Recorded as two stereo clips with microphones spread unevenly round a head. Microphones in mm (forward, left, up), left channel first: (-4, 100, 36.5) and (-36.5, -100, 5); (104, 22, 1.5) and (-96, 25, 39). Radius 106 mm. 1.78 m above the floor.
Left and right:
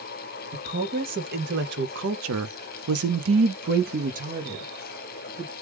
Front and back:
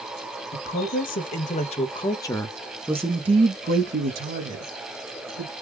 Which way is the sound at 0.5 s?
45° right.